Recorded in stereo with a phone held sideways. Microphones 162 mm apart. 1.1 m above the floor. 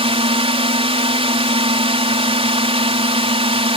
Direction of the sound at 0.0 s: 35° right (ahead or behind).